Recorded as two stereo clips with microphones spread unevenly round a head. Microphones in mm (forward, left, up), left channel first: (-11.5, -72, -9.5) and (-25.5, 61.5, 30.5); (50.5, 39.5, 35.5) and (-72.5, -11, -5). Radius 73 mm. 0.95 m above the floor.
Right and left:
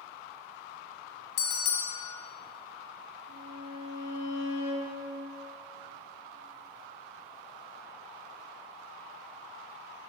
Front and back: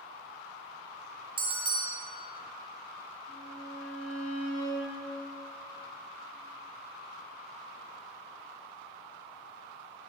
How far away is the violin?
About 3 m.